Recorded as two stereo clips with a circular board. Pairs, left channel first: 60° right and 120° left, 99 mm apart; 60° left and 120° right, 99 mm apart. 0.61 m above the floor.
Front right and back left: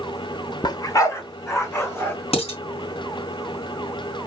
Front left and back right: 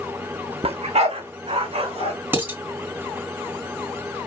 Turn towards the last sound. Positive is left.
turn(degrees=-50)